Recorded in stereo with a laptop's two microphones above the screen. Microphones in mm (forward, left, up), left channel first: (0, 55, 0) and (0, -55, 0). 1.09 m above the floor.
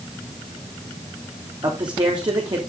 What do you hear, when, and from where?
1.6 s a man speaking: 45° right (ahead or behind), 3 m